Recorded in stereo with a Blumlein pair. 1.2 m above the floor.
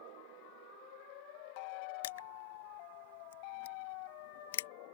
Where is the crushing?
60° left.